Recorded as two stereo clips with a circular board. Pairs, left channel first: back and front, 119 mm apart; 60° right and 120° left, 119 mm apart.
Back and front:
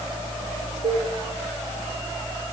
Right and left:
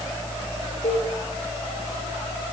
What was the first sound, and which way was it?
Dishes clattering, 45° right.